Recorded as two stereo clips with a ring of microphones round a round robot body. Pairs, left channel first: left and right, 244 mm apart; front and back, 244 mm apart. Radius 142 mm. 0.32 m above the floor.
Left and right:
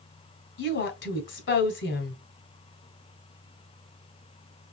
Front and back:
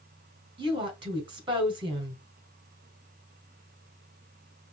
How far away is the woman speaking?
About 2 m.